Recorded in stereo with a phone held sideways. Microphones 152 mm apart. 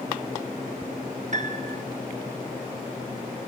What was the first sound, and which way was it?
A piano, 50° right (ahead or behind).